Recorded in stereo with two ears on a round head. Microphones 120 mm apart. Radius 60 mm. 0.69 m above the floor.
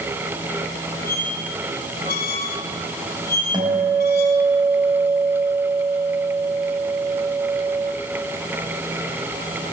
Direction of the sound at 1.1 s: 75° left (ahead or behind).